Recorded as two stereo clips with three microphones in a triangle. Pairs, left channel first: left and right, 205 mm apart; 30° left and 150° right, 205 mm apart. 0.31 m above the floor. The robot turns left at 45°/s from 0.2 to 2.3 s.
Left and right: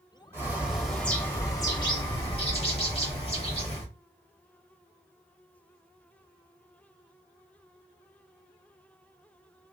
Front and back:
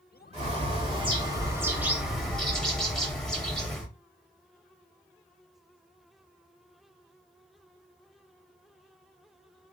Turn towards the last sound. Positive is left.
turn(degrees=115)